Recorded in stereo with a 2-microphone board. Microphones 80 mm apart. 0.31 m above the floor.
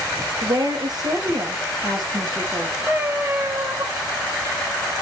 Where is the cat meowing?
30° right (ahead or behind), 4 m.